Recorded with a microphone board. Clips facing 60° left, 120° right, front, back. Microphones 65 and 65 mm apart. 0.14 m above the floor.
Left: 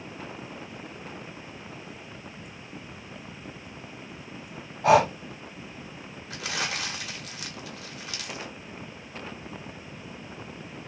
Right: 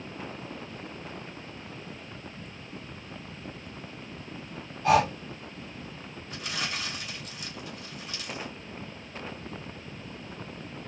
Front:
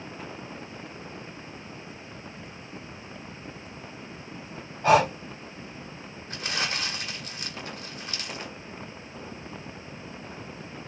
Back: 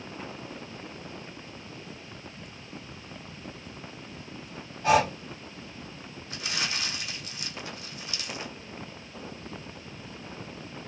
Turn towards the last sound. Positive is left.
turn(degrees=50)